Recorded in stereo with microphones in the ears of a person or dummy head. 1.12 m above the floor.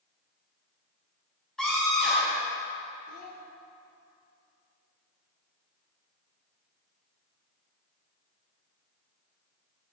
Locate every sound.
1.6 s a scream: 5° left (ahead or behind), 4 m
3.1 s a child speaking: 40° left (ahead or behind), 1.6 m